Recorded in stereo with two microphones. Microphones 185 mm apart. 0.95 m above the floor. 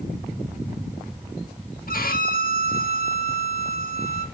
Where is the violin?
50° left (ahead or behind), 1.5 m.